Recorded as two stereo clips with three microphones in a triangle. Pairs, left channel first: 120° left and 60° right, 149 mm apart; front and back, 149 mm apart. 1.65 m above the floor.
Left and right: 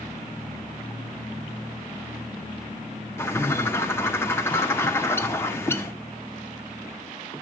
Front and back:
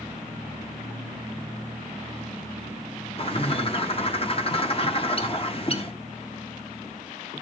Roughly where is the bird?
Ahead left.